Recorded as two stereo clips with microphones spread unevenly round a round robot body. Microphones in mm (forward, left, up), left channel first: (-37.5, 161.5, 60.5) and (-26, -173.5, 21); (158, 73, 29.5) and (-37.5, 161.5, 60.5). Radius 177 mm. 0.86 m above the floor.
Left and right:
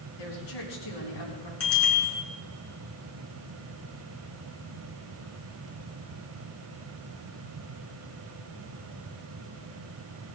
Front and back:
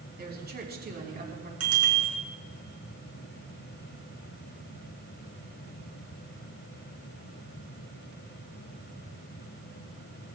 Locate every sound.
0.2 s a woman speaking: 110° left, 6.5 m
1.6 s a bicycle bell: 145° left, 8.5 m